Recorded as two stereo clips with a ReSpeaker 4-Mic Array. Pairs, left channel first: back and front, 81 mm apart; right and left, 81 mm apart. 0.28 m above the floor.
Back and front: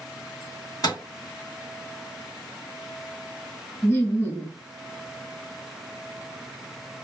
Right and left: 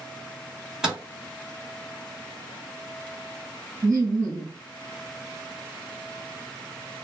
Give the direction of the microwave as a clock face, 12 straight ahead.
6 o'clock.